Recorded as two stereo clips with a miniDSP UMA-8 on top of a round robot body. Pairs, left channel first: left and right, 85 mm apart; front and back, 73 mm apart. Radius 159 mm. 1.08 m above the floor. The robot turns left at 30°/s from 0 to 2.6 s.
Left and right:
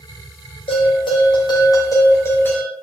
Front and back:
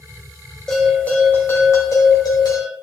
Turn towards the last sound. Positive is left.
turn(degrees=20)